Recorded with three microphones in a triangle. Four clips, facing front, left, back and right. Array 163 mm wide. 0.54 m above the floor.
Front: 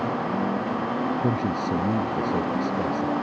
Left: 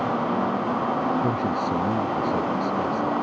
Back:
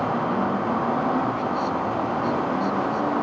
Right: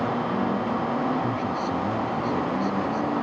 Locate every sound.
1.2 s a man speaking: 30° left